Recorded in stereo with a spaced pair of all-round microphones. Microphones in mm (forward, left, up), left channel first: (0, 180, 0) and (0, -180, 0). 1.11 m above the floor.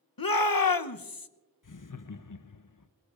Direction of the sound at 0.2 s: 70° left (ahead or behind).